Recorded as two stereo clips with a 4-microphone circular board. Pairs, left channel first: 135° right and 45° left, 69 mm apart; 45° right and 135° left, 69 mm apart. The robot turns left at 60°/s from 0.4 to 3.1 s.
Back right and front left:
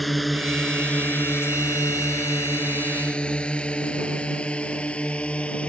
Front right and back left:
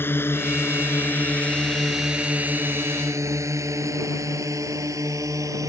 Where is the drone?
45° right; by 5.7 s 155° left.